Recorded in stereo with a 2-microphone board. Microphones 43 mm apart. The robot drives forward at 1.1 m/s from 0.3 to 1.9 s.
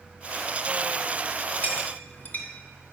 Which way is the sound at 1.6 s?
40° left (ahead or behind).